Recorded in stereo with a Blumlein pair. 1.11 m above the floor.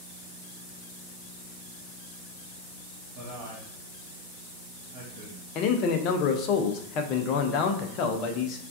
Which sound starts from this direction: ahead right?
A man speaking, at 3.1 s.